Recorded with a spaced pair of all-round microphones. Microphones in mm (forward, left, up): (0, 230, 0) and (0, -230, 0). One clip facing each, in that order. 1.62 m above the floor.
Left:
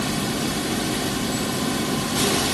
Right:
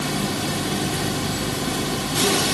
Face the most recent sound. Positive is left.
No sound to turn to.